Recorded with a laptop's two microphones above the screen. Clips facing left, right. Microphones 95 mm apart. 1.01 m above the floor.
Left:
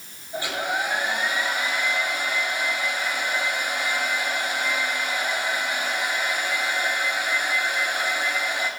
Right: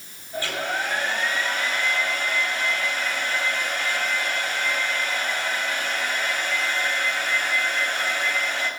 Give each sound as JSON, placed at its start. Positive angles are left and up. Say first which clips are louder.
{"t": 0.3, "sound": "a hair dryer", "louder": "left 1 dB", "side_deg": 15, "distance_m": 9.0}